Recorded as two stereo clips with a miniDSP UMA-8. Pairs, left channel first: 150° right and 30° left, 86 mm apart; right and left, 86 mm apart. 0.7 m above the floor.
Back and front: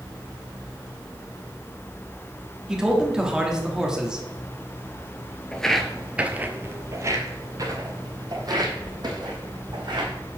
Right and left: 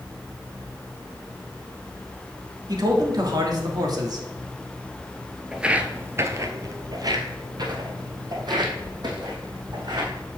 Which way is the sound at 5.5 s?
160° left.